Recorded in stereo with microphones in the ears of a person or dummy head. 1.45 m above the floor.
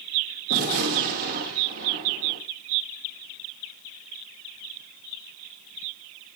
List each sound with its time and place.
0.5 s a gunshot: 55° right (ahead or behind), 2 m